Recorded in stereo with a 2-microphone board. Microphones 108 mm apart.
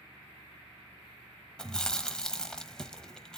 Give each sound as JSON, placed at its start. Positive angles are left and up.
{"t": 1.6, "sound": "chewing", "side_deg": 5, "distance_m": 0.9}